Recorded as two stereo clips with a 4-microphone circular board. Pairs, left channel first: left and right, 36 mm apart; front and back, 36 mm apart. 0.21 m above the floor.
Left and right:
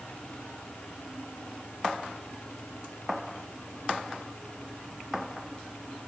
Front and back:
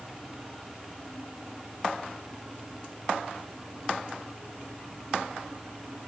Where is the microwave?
No microwave in this recording.